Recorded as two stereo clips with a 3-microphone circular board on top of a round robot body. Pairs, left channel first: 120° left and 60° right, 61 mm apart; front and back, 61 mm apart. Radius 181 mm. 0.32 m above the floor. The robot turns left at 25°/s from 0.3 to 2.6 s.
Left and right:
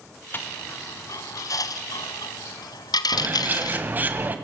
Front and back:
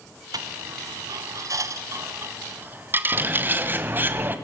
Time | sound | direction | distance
0.3 | a dropped coin | straight behind | 1.2 m
3.1 | a bird | 120° right | 1.6 m